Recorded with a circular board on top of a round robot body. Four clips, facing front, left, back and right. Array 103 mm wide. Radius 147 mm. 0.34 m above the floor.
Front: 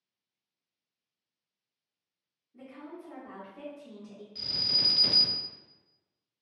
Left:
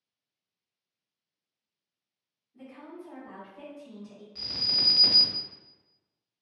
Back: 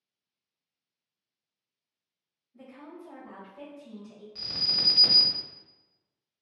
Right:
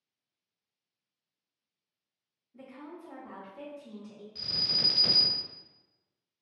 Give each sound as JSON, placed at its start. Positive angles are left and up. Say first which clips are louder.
{"t": 2.5, "sound": "a woman speaking", "louder": "left 1 dB, front 1 dB", "azimuth_deg": -55, "distance_m": 1.7}
{"t": 4.3, "sound": "an alarm", "louder": "left 1 dB, back 1 dB", "azimuth_deg": 150, "distance_m": 1.5}